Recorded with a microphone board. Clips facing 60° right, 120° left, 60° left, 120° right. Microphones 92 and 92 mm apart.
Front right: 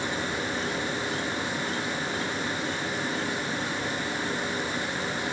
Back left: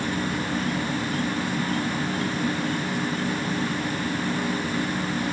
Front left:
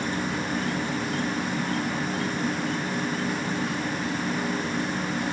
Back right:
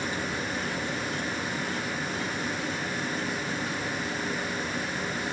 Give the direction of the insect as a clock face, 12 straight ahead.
9 o'clock.